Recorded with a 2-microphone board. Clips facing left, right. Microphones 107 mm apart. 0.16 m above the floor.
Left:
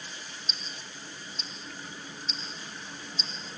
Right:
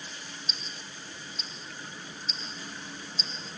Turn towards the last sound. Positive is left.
turn(degrees=-5)  # may be behind; listen again after turning